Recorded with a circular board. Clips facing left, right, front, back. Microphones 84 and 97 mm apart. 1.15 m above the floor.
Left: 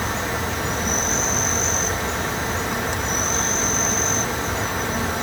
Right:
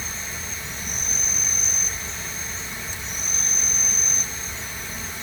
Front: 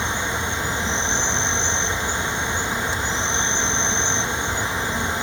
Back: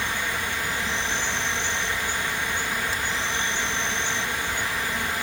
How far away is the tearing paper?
I don't hear tearing paper.